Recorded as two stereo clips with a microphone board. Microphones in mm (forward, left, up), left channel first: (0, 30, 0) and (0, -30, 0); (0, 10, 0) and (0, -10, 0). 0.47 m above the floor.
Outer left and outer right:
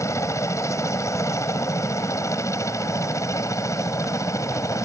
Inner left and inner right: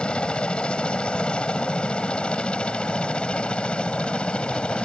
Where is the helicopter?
55° left (ahead or behind).